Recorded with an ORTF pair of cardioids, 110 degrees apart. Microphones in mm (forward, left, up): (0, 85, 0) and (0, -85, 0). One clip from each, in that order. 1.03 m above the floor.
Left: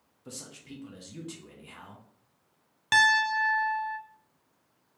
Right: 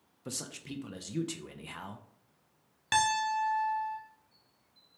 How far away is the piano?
About 0.6 m.